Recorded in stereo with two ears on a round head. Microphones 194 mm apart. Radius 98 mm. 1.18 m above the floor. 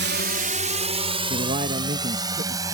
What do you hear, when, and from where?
0.0 s a drone: 55° right (ahead or behind); by 2.8 s 15° right (ahead or behind)
1.3 s a man speaking: 35° right (ahead or behind)